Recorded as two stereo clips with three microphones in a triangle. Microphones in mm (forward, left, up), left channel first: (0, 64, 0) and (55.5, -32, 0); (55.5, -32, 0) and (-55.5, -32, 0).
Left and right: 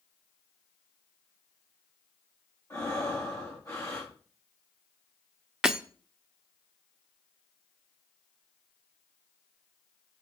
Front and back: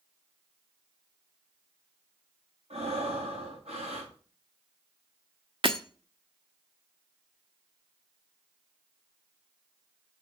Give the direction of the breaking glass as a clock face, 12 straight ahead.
5 o'clock.